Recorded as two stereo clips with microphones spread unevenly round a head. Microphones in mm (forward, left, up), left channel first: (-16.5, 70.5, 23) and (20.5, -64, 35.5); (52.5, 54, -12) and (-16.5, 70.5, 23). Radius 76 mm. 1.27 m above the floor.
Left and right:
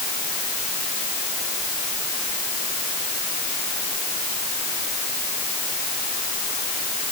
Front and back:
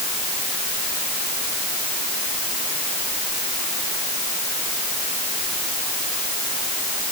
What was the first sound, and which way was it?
Only background noise.